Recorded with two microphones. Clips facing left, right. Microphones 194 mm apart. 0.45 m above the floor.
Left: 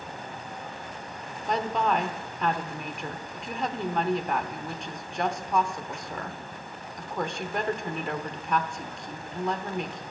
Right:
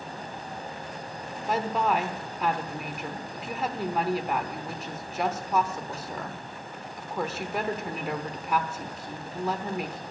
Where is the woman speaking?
5° right (ahead or behind), 0.8 m.